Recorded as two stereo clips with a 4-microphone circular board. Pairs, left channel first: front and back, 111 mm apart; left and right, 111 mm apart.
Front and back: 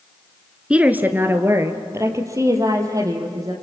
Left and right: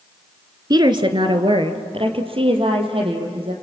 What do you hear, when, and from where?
0.7 s a woman speaking: 105° right, 1.3 m; by 3.5 s 120° right, 4.5 m